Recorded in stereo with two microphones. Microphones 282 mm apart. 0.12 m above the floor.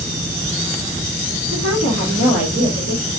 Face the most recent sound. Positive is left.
turn(degrees=-70)  # may be behind; listen again after turning